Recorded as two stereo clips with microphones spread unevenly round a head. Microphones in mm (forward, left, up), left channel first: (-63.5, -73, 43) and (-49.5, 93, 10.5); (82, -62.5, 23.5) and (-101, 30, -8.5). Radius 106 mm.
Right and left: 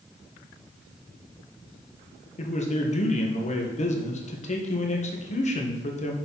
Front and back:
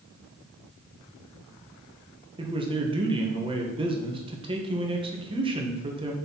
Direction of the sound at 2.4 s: 140° right.